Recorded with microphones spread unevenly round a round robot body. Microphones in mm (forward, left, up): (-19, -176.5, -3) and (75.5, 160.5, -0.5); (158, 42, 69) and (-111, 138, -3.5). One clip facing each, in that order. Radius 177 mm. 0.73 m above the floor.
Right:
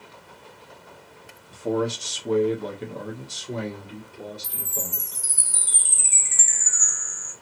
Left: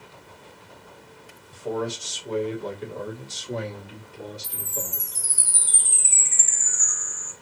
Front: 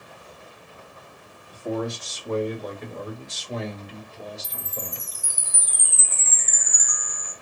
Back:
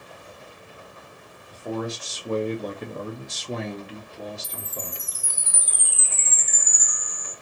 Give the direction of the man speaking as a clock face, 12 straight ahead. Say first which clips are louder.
Right 4 dB, front 2 dB; 4 o'clock.